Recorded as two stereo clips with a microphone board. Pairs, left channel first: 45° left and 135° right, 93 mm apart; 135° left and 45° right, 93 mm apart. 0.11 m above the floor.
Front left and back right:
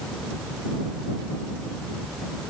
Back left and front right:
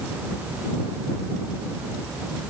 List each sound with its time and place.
Only background noise.